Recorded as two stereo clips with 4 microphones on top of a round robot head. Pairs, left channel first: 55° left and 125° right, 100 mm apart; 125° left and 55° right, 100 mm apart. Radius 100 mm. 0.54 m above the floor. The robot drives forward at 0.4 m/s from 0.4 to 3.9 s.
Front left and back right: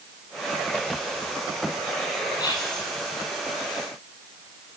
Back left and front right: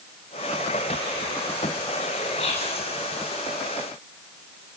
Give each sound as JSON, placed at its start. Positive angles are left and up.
{"t": 2.4, "sound": "whispering", "azimuth_deg": 105, "distance_m": 8.0}